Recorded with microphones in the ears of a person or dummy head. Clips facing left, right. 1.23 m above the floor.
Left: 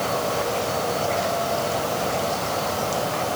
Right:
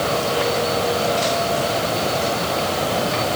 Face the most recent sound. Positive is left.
No sound to turn to.